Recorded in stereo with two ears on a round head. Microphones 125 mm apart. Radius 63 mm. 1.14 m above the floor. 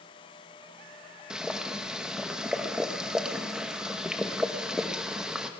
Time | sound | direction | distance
1.3 | boiling | 5° right (ahead or behind) | 0.9 m